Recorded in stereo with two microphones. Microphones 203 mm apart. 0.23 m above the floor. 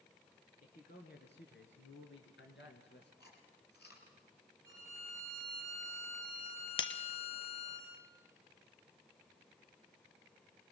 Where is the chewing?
55° left (ahead or behind), 4.5 m.